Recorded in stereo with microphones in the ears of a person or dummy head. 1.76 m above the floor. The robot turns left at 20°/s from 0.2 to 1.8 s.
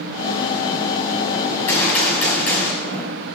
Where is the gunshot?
20° left (ahead or behind), 6.5 m; by 3.1 s 15° left (ahead or behind), 6.5 m.